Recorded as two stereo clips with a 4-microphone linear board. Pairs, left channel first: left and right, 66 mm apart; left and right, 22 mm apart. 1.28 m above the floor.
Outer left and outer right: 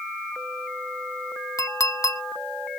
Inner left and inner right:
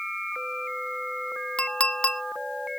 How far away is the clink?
About 0.9 m.